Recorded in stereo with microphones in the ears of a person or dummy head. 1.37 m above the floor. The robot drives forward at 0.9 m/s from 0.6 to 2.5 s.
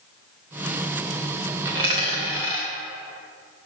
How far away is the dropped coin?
About 0.7 m.